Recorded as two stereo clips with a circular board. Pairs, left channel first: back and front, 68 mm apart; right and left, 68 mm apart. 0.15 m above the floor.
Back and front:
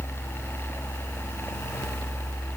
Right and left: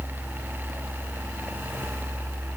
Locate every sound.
Only background noise.